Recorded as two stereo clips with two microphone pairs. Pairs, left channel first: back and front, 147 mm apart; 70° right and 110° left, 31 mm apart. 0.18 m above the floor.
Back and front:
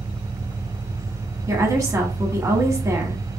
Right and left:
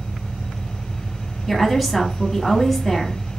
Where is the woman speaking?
25° left, 1.1 m.